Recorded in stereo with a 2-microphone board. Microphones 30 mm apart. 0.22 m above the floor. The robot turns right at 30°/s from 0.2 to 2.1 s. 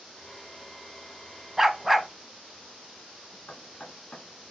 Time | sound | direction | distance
1.6 | a dog barking | 5° right (ahead or behind) | 0.6 m
3.5 | knocking | 50° left (ahead or behind) | 1.8 m